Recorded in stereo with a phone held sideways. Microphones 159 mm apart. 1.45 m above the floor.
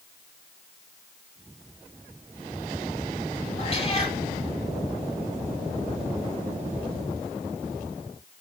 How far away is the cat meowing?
About 6.5 m.